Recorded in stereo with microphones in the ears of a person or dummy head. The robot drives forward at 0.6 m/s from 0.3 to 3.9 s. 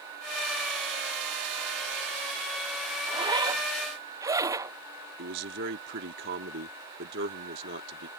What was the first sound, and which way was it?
A zipper, 30° right (ahead or behind).